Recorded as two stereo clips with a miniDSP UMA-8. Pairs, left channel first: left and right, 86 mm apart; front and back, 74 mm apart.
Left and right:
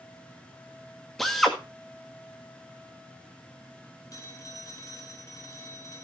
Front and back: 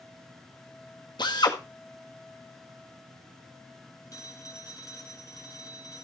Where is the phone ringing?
40° left, 1.8 m.